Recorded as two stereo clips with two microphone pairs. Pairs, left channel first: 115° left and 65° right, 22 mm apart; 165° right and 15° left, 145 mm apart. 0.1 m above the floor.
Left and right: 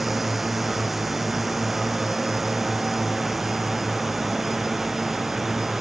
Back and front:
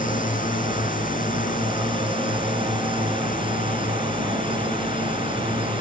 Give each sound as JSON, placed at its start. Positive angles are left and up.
{"t": 0.0, "sound": "a drone", "azimuth_deg": -145}